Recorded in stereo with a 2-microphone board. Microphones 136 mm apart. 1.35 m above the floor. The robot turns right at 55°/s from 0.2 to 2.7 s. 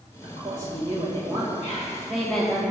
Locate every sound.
0.2 s a woman speaking: 110° right, 1.9 m; by 2.6 s 20° left, 1.9 m
1.6 s whispering: 60° left (ahead or behind), 2 m; by 2.1 s 80° left, 2 m